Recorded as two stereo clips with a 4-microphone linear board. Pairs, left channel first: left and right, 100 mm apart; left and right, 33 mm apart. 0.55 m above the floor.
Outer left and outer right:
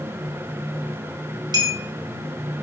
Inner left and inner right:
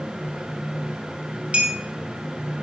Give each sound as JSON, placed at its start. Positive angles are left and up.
{"t": 1.5, "sound": "a clink", "side_deg": -45, "distance_m": 2.5}